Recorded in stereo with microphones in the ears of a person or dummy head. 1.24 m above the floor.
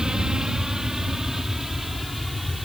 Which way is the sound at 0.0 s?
5° right (ahead or behind).